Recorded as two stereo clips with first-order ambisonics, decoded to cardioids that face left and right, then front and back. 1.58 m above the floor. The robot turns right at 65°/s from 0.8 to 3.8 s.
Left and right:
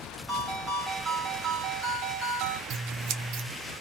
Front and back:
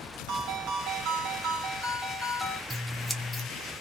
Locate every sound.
0.3 s a ringtone: straight behind, 1.0 m; by 2.6 s 60° right, 1.0 m
2.7 s scissors: 105° right, 0.6 m; by 3.5 s 55° right, 0.6 m